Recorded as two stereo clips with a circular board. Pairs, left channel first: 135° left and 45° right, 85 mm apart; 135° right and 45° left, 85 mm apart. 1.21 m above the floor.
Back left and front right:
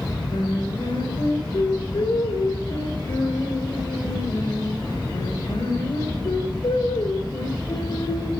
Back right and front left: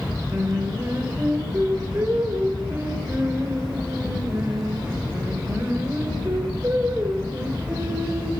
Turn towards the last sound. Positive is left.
turn(degrees=110)